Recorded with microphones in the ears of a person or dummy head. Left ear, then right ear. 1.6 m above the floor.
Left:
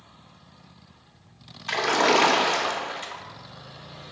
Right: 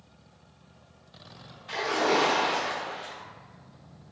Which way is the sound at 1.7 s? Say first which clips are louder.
Left 5 dB; 45° left (ahead or behind).